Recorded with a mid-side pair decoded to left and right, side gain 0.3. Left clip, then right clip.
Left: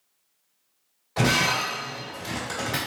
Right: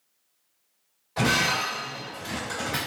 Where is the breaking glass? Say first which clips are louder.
Left 1 dB; 45° left, 1.9 m.